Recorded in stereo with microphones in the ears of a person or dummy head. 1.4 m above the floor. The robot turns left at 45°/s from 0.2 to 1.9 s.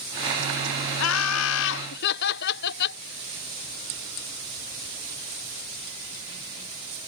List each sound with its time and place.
1.0 s laughter: 105° left; by 3.0 s 65° left